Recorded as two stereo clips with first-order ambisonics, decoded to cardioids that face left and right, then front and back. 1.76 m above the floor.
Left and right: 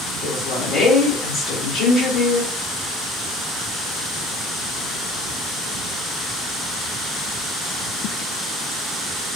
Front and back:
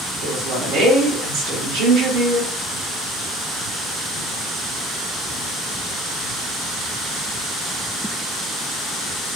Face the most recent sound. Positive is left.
turn(degrees=145)